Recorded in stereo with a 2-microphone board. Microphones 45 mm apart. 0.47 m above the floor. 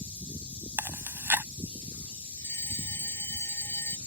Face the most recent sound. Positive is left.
turn(degrees=80)